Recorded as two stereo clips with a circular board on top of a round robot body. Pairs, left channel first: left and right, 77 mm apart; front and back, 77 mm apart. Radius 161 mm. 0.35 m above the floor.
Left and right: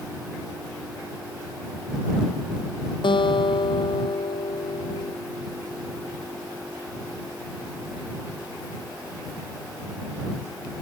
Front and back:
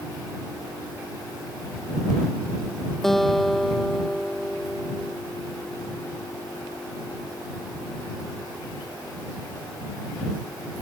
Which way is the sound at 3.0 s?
85° left.